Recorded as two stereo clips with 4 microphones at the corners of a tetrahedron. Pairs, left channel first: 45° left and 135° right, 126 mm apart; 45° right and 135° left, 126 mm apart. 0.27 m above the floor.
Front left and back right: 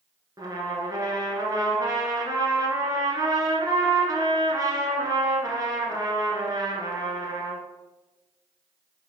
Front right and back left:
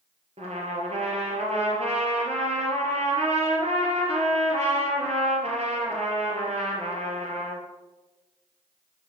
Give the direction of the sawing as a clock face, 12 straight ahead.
No sawing in this recording.